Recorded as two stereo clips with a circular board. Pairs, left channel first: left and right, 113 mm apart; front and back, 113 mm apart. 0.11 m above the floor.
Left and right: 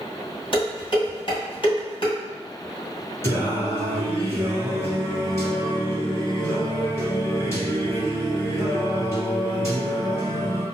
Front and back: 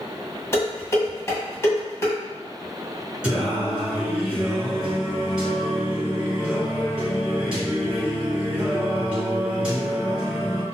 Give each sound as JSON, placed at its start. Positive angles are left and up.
{"t": 0.5, "sound": "dishes clattering", "azimuth_deg": 60, "distance_m": 1.8}
{"t": 3.2, "sound": "singing", "azimuth_deg": 110, "distance_m": 1.5}